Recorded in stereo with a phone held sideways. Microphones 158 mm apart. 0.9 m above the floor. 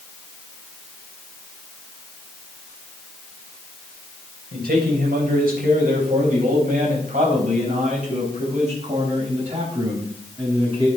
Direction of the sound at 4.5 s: 80° right.